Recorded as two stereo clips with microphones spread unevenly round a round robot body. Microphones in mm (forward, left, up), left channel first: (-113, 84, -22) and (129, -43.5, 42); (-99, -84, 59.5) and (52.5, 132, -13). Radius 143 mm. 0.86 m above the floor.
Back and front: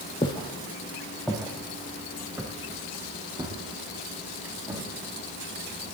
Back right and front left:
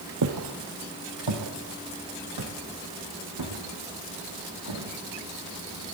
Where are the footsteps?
75° left, 1.7 m; by 4.9 s 45° left, 5 m.